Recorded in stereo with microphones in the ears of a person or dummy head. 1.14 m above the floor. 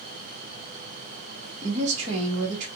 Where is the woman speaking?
40° right (ahead or behind), 1.1 m.